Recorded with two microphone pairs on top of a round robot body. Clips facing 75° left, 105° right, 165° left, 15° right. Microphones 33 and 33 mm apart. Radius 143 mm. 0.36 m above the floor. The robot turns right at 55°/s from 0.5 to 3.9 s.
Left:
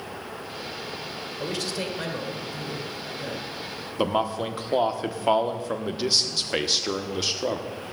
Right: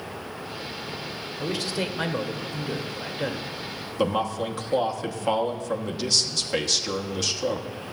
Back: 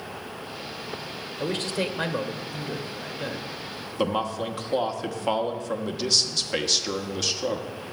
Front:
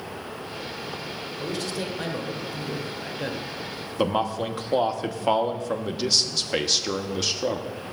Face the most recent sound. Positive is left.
turn(degrees=75)